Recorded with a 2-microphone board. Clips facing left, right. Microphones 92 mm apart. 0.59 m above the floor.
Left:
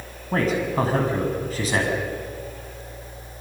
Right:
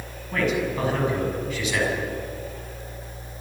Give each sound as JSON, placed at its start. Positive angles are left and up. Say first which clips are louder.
{"t": 0.3, "sound": "a man speaking", "louder": "left 2 dB", "side_deg": 35, "distance_m": 6.0}